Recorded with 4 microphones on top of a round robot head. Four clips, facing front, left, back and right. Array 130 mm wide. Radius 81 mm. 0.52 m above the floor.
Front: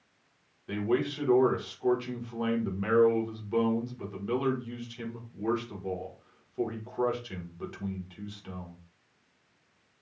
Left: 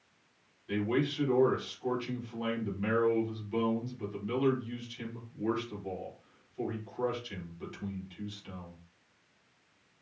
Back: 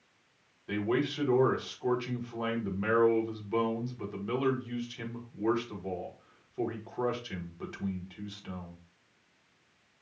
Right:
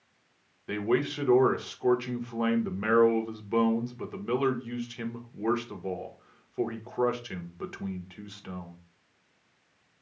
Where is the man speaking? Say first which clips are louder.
Right 3 dB, front 1 dB; 90° right, 1.4 m.